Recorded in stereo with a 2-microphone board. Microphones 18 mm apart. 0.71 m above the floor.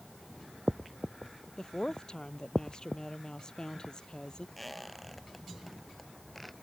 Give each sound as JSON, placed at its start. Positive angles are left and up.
{"t": 1.6, "sound": "a woman speaking", "side_deg": 35}
{"t": 4.6, "sound": "a squeak", "side_deg": 10}